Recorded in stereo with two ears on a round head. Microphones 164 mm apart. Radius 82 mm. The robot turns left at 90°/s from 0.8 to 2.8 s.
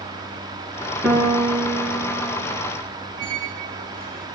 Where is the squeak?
45° right (ahead or behind), 0.7 m.